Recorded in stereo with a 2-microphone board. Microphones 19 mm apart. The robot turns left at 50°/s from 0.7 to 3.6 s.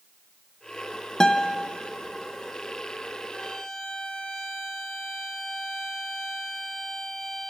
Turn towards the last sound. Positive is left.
turn(degrees=45)  # may be behind; listen again after turning